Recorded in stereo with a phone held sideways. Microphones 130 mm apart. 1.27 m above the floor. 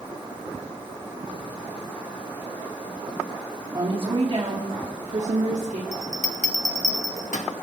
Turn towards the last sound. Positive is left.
turn(degrees=75)  # may be behind; listen again after turning